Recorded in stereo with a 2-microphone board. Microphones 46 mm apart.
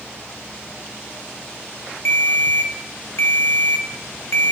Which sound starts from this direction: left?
A ringtone, at 2.0 s.